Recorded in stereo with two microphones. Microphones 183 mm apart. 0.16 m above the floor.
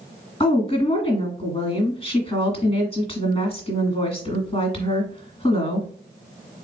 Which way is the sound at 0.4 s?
30° left (ahead or behind).